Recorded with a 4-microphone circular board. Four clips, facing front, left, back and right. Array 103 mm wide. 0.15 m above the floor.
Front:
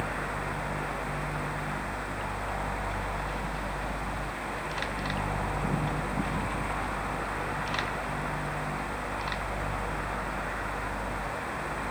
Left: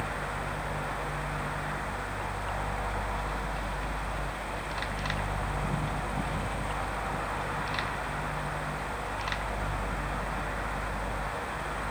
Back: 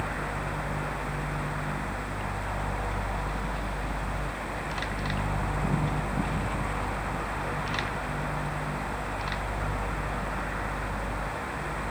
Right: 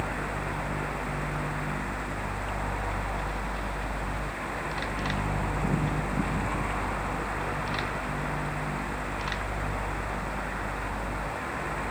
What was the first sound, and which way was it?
Only background noise.